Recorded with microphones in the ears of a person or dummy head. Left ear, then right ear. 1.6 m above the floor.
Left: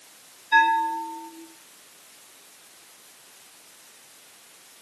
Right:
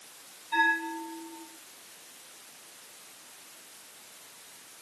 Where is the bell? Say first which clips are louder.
Left 7 dB; 80° left, 3 m.